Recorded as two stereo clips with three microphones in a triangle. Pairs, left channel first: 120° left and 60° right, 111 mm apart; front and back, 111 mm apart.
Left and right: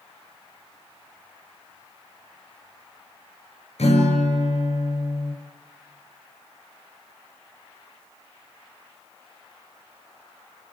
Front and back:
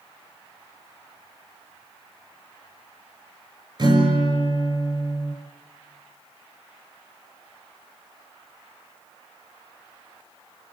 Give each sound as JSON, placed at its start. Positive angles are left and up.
{"t": 3.8, "sound": "a guitar", "azimuth_deg": 135, "distance_m": 6.5}